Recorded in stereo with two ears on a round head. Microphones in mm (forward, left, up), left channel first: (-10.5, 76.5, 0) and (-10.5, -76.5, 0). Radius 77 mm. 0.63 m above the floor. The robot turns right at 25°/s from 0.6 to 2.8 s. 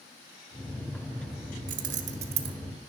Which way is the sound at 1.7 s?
50° right (ahead or behind).